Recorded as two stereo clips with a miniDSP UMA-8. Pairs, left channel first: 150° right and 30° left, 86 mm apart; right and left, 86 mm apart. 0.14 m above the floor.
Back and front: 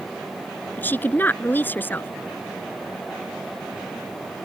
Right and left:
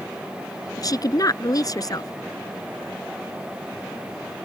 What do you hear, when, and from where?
0.8 s a woman speaking: 95° right